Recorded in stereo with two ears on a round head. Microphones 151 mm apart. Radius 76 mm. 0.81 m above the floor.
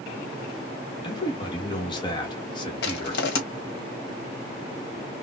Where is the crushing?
70° left (ahead or behind), 1.6 m.